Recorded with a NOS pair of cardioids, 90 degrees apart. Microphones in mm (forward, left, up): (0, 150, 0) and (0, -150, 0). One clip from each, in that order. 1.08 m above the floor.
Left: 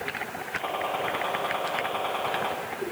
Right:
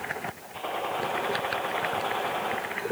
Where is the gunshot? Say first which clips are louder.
Left 2 dB; 35° left, 8 m.